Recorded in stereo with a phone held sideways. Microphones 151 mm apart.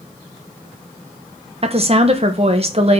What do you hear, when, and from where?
1.6 s a woman speaking: 40° right (ahead or behind), 1.0 m